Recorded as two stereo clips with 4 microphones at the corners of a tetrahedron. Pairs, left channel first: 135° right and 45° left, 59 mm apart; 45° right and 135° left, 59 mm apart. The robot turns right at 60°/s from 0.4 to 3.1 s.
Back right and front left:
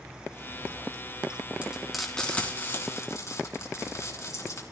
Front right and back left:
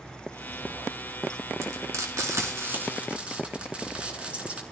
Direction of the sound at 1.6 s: 110° left.